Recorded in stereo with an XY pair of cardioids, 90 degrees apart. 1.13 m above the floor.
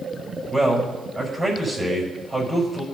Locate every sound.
0.5 s a man speaking: 25° right, 5.5 m